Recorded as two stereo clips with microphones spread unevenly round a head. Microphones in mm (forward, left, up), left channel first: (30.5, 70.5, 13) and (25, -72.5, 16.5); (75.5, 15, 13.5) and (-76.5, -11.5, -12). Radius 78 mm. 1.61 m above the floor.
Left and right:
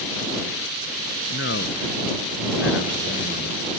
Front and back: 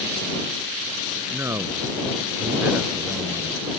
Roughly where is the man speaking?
Behind left.